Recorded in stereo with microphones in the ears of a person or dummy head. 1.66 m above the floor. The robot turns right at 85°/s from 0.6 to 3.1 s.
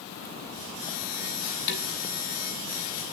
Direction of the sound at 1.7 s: 50° left (ahead or behind).